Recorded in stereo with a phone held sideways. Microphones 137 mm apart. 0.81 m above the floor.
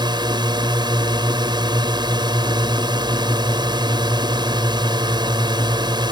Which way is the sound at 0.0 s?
30° right (ahead or behind).